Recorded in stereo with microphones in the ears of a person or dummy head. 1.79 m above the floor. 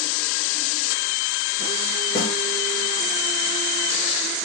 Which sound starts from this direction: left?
A snare drum, at 2.1 s.